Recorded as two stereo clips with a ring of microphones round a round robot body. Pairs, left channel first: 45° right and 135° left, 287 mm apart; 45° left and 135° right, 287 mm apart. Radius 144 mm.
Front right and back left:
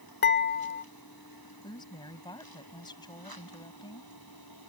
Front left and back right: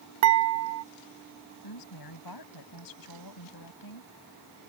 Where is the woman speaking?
30° left.